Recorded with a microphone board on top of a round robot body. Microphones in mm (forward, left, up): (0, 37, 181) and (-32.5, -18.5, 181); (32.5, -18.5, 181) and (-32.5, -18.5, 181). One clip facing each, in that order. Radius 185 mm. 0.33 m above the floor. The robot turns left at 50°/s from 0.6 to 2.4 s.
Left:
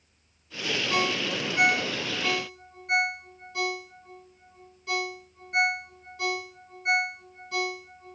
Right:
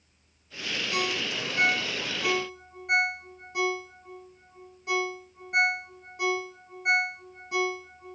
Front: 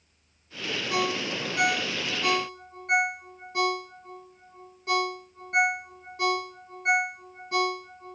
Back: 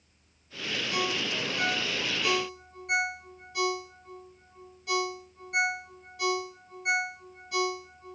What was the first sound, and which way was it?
A ringtone, 20° left.